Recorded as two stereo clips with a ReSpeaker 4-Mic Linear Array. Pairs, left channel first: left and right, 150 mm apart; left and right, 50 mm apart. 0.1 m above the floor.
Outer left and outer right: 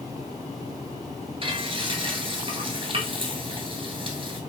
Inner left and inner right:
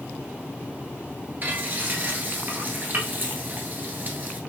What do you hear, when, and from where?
1.4 s frying: 35° right (ahead or behind), 1.5 m